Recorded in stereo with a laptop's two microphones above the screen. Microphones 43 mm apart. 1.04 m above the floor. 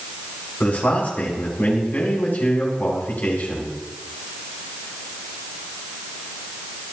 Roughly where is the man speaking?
Left.